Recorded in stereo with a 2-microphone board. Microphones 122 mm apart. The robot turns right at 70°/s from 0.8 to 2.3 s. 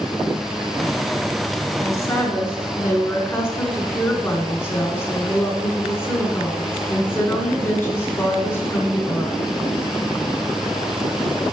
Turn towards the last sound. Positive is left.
turn(degrees=20)  # may be behind; listen again after turning